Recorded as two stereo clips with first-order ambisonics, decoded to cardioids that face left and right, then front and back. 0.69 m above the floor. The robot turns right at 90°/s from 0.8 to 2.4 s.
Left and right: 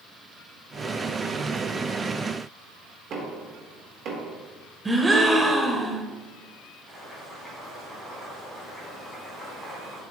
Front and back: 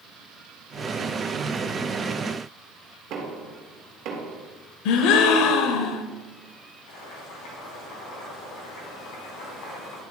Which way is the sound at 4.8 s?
10° right.